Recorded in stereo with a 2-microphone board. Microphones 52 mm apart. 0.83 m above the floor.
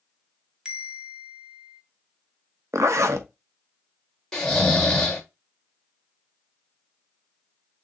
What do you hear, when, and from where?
0.7 s a bell: 15° right (ahead or behind), 0.9 m
2.7 s a zipper: 65° right (ahead or behind), 0.7 m
4.3 s snoring: 15° left (ahead or behind), 1.3 m